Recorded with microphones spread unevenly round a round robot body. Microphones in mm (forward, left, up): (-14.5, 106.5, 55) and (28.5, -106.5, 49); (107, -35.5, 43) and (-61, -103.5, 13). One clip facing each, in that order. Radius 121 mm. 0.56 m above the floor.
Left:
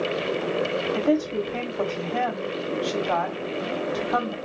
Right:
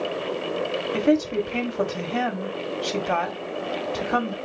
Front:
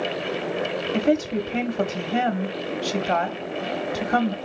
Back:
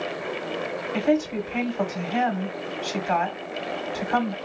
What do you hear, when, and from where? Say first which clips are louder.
0.9 s a woman speaking: right 3 dB, front 1 dB; 25° right, 1.3 m